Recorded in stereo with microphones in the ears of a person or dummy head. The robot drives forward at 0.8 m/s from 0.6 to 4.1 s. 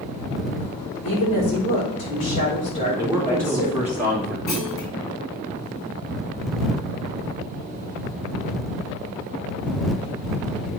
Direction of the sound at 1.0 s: 40° left (ahead or behind).